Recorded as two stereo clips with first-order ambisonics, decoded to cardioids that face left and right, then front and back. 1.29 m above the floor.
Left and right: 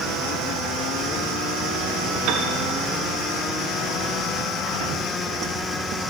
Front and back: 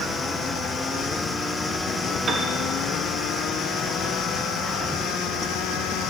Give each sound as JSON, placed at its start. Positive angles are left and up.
{"t": 2.3, "sound": "a piano", "azimuth_deg": -115, "distance_m": 0.7}